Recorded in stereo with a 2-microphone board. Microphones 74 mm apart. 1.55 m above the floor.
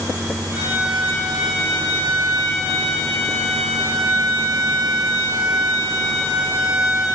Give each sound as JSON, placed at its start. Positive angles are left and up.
{"t": 0.5, "sound": "a violin", "side_deg": -25, "distance_m": 5.0}